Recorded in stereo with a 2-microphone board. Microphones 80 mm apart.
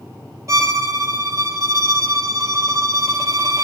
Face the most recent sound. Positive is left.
turn(degrees=-40)  # may be behind; listen again after turning